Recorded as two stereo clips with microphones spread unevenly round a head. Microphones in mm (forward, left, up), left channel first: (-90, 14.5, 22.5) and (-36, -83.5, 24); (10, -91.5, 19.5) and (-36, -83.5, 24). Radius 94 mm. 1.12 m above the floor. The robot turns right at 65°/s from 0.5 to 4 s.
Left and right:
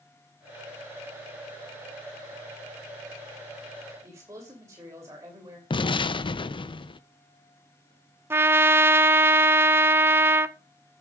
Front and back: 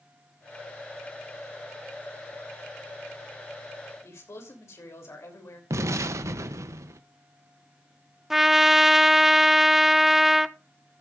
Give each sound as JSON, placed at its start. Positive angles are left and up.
{"t": 4.0, "sound": "a man speaking", "azimuth_deg": 10, "distance_m": 3.0}
{"t": 5.7, "sound": "an explosion", "azimuth_deg": 170, "distance_m": 0.6}
{"t": 8.3, "sound": "a trumpet", "azimuth_deg": -120, "distance_m": 0.6}